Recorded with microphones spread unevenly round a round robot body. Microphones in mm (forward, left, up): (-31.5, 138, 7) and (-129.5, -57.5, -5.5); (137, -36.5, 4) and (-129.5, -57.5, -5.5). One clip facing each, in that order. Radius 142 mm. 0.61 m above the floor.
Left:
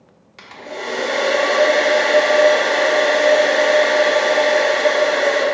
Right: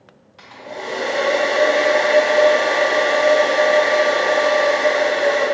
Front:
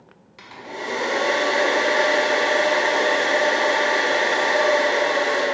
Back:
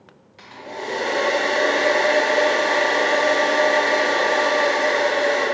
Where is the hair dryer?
65° left, 0.6 m.